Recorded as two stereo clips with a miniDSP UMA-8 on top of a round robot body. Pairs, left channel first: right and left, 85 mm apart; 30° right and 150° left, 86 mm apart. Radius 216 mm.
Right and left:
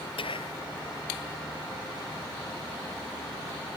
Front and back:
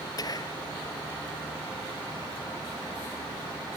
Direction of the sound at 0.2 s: 75° right.